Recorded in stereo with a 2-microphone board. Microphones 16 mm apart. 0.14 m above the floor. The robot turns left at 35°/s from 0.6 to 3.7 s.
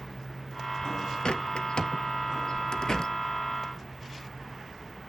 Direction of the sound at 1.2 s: 65° left (ahead or behind).